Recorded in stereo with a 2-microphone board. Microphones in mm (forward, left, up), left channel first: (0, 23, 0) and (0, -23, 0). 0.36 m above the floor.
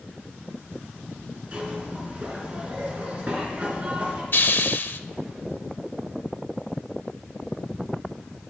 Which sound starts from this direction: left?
A hiss, at 4.3 s.